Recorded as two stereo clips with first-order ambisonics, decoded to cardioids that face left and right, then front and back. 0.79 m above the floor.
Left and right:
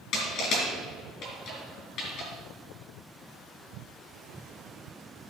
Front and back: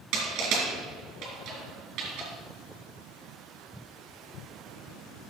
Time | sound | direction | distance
0.1 | crushing | 140° left | 3.5 m